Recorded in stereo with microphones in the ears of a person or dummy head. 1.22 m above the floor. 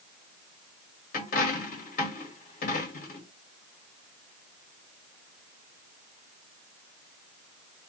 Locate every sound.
1.1 s a dropped coin: 50° left (ahead or behind), 1.7 m